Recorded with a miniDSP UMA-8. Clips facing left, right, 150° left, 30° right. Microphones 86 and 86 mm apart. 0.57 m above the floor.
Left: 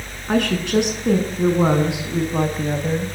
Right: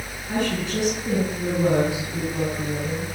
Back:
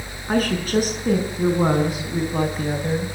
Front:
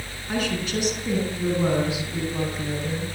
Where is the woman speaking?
105° left, 7.5 m; by 3.2 s 110° left, 4 m.